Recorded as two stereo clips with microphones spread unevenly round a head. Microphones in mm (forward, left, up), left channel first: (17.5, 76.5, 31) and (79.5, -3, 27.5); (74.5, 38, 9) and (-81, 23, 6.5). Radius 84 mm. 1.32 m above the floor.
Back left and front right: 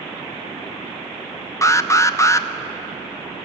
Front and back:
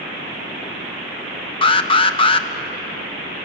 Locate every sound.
1.6 s an alarm: 65° left, 0.8 m